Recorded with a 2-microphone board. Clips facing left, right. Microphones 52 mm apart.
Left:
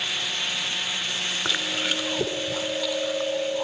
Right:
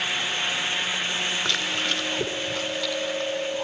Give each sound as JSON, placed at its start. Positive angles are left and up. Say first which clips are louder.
{"t": 1.4, "sound": "chewing", "louder": "right 1 dB", "side_deg": 10}